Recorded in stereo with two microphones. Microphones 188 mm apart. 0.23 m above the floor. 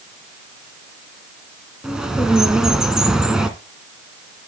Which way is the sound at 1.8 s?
5° right (ahead or behind).